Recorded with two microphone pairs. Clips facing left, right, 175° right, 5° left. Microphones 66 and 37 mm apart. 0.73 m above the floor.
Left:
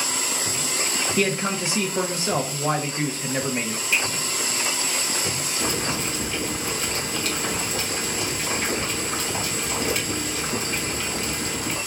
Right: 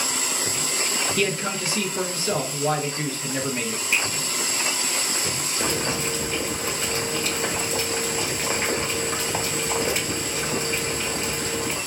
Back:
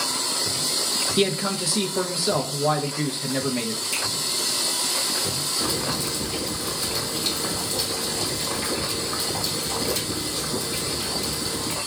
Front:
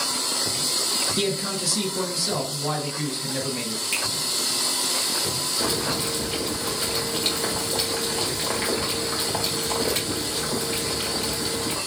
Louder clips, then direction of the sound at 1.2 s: Left 3 dB, back 3 dB; 145° left.